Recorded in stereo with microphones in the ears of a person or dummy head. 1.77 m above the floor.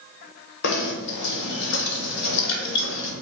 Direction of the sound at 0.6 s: 65° left (ahead or behind).